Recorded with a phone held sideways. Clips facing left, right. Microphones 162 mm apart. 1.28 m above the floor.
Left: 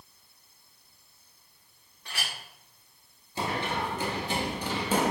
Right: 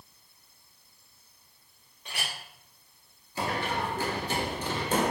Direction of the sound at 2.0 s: 20° right (ahead or behind).